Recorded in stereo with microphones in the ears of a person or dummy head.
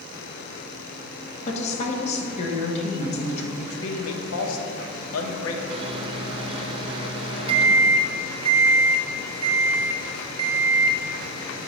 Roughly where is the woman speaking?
Left.